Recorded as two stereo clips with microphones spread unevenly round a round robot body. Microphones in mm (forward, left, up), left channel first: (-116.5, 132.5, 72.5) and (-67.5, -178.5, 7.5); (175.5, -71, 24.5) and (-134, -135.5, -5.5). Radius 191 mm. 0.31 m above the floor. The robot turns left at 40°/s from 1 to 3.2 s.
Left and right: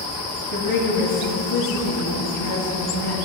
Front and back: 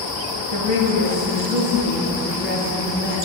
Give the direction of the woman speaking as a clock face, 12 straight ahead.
7 o'clock.